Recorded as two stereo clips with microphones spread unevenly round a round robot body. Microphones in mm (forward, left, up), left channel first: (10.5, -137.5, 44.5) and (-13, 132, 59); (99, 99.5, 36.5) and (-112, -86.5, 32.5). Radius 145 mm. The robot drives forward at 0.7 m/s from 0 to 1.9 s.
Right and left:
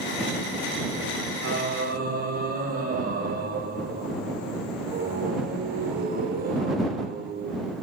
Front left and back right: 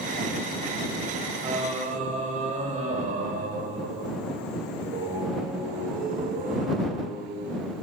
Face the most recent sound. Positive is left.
turn(degrees=155)